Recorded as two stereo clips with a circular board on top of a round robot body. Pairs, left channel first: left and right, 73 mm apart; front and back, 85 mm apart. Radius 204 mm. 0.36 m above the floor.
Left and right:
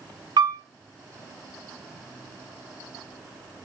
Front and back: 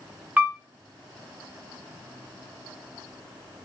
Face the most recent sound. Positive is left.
turn(degrees=-105)